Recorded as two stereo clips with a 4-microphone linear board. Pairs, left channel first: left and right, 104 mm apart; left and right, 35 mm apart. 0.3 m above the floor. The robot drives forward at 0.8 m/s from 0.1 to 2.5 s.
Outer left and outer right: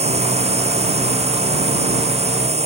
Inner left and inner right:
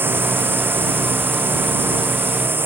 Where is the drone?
80° right.